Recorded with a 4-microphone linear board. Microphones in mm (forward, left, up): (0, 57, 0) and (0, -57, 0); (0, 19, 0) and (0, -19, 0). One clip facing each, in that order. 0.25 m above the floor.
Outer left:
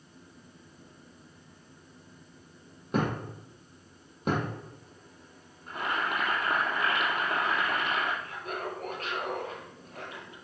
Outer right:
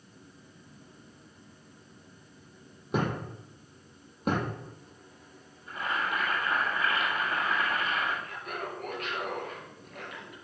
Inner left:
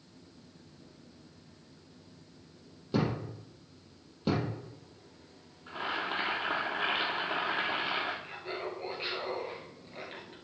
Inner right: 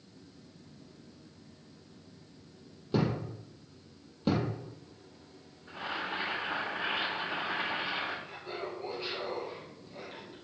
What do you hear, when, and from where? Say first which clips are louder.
2.9 s a thud: outer left 1 dB, inner right 1 dB; 5° right (ahead or behind), 3.5 m
4.2 s a thud: even, inner right 1 dB; centre (ahead or behind), 3 m
5.7 s boiling: outer left 1 dB, inner left 2 dB; 60° left (ahead or behind), 3.5 m
8.2 s laughter: outer left 2 dB, inner left 1 dB; 35° left (ahead or behind), 4 m